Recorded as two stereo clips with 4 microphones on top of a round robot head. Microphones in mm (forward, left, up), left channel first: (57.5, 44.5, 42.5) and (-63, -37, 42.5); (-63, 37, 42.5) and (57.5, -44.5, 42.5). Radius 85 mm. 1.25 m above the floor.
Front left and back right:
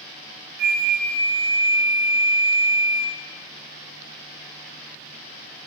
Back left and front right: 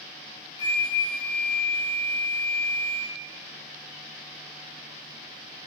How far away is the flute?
About 2.5 m.